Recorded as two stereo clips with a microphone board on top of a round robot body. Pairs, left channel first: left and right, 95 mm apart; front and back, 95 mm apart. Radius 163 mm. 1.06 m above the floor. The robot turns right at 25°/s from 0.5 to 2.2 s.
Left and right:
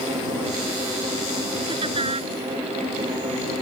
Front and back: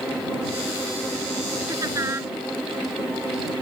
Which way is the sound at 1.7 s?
125° right.